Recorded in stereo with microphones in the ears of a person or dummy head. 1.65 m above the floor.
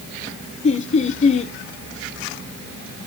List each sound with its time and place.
0.6 s laughter: 35° left (ahead or behind), 1.0 m